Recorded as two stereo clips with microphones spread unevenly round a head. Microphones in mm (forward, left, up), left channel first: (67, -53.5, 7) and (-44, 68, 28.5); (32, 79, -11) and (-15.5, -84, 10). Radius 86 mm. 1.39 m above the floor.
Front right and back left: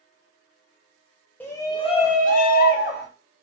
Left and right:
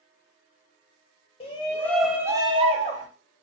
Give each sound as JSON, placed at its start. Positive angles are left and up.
{"t": 1.4, "sound": "a shout", "azimuth_deg": 25, "distance_m": 0.6}